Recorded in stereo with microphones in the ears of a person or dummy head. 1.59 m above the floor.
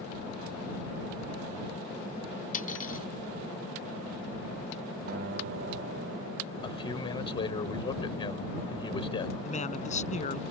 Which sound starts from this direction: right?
A guitar, at 5.1 s.